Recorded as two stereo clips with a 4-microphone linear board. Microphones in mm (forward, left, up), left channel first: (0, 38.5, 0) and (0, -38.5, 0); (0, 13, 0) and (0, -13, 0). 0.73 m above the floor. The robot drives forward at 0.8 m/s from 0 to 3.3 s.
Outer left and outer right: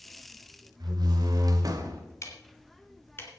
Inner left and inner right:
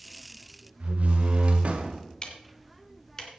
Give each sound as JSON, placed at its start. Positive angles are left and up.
{"t": 0.8, "sound": "a door slam", "side_deg": -65, "distance_m": 2.0}
{"t": 2.2, "sound": "ticking", "side_deg": 40, "distance_m": 2.5}